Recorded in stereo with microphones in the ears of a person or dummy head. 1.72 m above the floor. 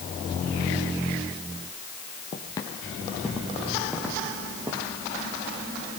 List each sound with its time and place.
2.3 s footsteps: 25° left (ahead or behind), 2 m; by 4.9 s 25° right (ahead or behind), 4 m